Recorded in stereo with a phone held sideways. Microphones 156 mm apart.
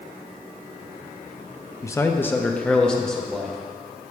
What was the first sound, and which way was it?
A man speaking, 20° left (ahead or behind).